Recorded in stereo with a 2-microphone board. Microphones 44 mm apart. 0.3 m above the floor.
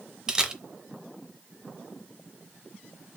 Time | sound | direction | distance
0.3 | a camera shutter | 15° right (ahead or behind) | 0.6 m